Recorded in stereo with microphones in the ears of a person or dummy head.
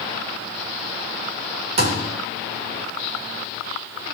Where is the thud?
65° right (ahead or behind), 2.5 m.